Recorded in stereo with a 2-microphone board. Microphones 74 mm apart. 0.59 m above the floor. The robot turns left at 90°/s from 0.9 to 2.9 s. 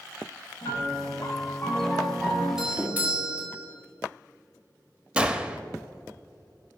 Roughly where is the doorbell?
Centre.